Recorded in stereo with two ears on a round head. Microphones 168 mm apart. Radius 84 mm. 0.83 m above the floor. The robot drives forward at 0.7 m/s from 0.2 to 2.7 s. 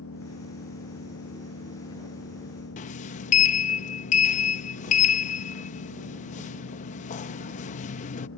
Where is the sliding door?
40° left (ahead or behind).